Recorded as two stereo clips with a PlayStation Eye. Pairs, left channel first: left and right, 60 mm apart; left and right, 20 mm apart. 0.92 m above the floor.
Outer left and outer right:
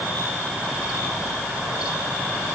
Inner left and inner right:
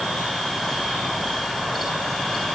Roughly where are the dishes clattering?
No dishes clattering in this recording.